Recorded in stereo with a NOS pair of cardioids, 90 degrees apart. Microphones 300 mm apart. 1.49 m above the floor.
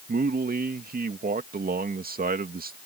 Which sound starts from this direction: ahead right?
A man speaking, at 0.1 s.